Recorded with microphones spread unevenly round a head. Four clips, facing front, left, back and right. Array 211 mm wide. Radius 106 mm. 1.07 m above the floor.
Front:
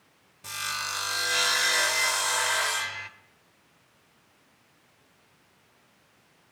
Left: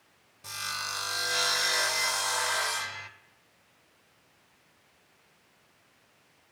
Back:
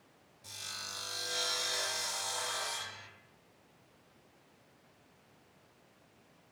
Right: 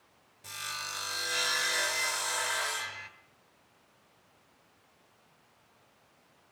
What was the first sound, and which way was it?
Sawing, 50° left.